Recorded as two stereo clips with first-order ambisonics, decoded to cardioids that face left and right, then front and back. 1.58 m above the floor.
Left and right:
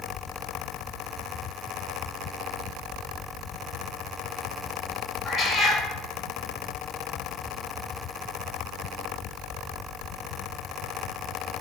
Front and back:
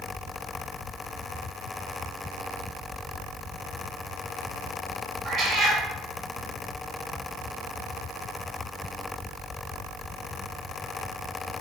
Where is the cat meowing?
Straight behind, 1.9 m.